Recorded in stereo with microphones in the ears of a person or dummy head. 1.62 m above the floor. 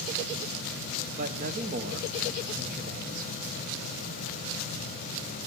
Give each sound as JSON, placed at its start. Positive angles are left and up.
{"t": 1.2, "sound": "a man speaking", "side_deg": -45, "distance_m": 1.0}